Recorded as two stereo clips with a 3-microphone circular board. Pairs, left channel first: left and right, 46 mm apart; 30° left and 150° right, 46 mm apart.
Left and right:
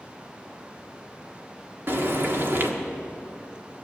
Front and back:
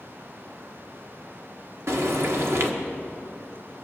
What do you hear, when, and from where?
1.9 s frying: 125° right, 1.5 m